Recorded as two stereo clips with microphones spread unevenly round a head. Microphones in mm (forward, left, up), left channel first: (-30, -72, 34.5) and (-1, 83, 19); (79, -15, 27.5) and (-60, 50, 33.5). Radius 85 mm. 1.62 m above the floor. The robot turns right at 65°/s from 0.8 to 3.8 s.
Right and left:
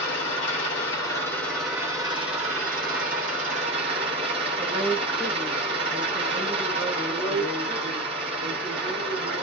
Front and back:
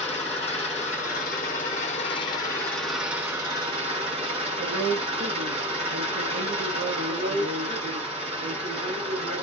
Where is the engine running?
70° right, 1.1 m; by 9.4 s 125° left, 1.1 m.